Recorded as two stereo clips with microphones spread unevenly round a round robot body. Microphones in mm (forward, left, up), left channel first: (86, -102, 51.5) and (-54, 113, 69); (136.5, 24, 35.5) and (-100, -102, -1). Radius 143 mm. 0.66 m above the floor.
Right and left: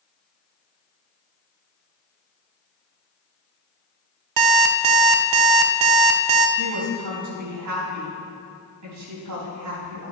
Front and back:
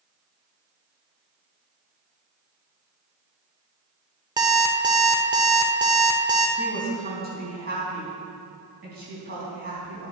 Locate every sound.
4.4 s an alarm clock: 130° left, 0.8 m
6.6 s a woman speaking: 150° left, 4.5 m